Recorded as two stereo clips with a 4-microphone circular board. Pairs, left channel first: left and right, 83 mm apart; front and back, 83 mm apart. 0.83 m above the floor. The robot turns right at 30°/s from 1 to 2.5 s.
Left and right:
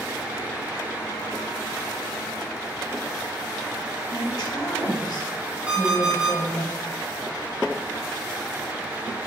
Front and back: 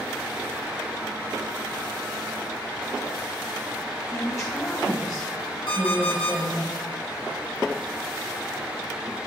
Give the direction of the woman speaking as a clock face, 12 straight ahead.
10 o'clock.